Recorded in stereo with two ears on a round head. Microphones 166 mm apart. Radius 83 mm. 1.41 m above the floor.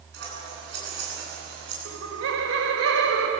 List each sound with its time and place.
0.1 s scissors: 65° right (ahead or behind), 9.5 m
1.9 s laughter: 85° right, 5.5 m